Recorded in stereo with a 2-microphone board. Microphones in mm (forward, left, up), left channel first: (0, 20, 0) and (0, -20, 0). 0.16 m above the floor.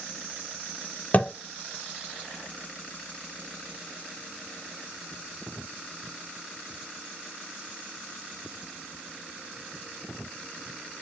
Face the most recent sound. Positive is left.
turn(degrees=40)  # may be behind; listen again after turning